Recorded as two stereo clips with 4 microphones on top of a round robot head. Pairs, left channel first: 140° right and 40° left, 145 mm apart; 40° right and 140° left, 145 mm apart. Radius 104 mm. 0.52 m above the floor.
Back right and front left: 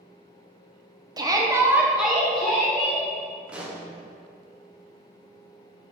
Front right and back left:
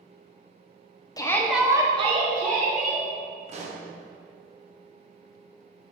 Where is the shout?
Straight ahead, 0.7 m; by 3.0 s 135° left, 1.4 m.